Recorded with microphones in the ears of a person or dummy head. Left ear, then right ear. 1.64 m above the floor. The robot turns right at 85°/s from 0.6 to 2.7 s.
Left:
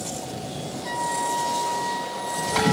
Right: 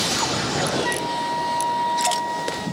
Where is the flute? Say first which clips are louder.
Right 2 dB; 60° right, 3 m; by 2.7 s 100° left, 3 m.